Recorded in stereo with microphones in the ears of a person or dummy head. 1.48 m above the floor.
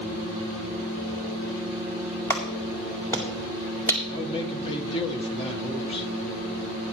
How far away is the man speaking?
About 1.5 m.